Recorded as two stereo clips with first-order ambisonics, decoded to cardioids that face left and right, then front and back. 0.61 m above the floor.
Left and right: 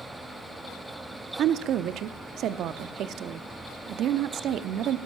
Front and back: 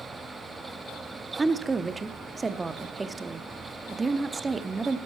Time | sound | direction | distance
1.4 | a woman speaking | 105° right | 0.7 m